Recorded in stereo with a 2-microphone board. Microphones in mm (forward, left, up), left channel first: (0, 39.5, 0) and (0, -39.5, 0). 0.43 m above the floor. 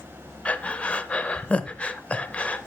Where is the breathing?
15° left (ahead or behind), 0.7 m.